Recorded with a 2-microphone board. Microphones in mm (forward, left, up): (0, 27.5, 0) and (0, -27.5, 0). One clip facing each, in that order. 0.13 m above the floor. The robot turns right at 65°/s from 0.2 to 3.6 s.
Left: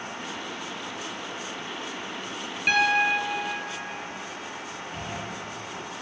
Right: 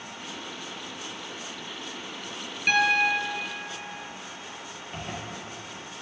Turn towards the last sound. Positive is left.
turn(degrees=-50)  # may be behind; listen again after turning